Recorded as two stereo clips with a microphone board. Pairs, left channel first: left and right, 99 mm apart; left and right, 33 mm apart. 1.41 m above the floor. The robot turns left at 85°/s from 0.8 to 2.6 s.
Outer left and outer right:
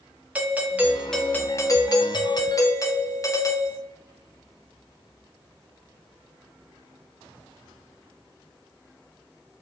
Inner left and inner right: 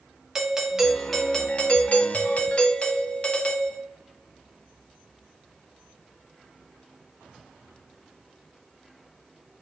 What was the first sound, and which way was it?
A doorbell, 160° right.